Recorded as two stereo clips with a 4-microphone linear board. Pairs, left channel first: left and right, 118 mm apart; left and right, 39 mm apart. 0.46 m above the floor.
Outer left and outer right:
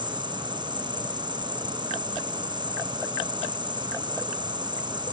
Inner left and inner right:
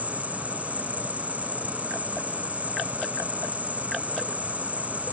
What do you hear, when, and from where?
0.0 s an insect: 40° right (ahead or behind)